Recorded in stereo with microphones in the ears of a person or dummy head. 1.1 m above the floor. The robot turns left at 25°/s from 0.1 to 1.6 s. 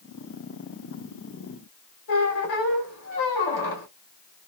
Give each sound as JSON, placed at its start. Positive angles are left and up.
{"t": 2.1, "sound": "a squeak", "side_deg": 70, "distance_m": 1.4}